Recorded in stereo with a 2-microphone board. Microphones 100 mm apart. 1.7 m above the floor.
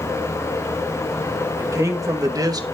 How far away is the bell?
I don't hear a bell.